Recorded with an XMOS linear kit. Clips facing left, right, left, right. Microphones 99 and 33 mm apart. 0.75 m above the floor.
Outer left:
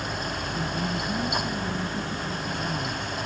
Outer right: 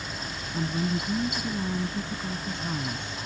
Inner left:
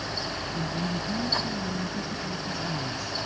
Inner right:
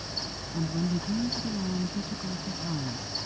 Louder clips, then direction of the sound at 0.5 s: Outer right 3 dB, inner right 3 dB; 20° right (ahead or behind).